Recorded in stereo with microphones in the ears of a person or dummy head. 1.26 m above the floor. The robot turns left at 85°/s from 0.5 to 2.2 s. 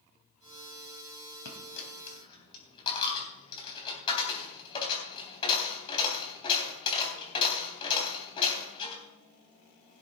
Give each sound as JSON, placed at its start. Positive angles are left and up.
{"t": 1.4, "sound": "a dropped coin", "side_deg": 75, "distance_m": 3.5}